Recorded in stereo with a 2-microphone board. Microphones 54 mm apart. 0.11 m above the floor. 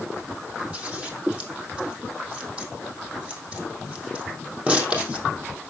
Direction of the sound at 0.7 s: 25° right (ahead or behind).